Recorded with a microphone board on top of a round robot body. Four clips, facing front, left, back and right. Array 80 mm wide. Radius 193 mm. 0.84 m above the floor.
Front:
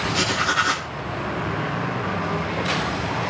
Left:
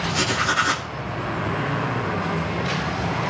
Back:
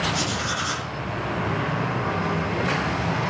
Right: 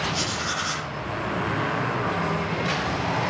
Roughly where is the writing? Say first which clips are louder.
Left 6 dB, front 5 dB; ahead left.